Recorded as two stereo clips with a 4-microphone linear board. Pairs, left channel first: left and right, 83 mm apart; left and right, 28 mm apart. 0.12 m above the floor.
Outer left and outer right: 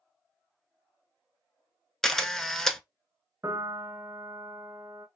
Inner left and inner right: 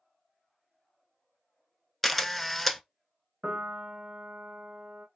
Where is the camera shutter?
5° left (ahead or behind), 0.5 m.